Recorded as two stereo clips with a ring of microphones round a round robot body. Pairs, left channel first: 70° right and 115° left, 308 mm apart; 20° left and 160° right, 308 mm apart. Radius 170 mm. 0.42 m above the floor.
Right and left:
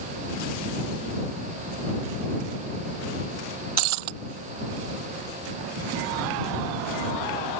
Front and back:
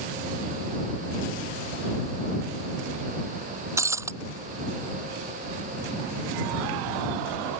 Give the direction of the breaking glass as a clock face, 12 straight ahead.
8 o'clock.